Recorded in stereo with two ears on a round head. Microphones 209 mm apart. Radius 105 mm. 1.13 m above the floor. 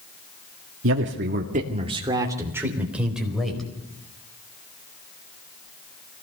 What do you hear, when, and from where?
0.8 s a man speaking: 65° right (ahead or behind), 1.9 m; by 3.7 s centre (ahead or behind), 5 m